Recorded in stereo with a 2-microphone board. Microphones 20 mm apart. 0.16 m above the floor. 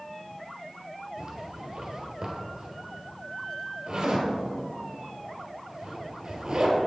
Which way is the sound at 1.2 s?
40° right (ahead or behind).